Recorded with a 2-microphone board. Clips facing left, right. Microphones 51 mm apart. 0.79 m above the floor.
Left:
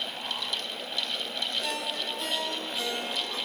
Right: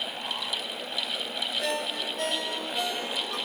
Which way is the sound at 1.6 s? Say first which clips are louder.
Right 2 dB; 65° right (ahead or behind).